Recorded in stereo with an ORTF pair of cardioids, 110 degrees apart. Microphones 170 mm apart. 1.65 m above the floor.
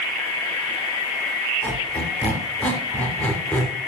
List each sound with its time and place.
1.6 s a squeak: 10° left, 3 m